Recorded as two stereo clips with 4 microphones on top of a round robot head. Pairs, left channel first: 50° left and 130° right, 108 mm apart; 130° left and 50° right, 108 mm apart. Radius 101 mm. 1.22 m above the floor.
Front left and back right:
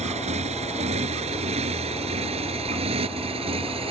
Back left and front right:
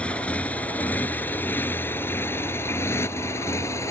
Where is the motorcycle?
150° right; by 3.9 s 165° right.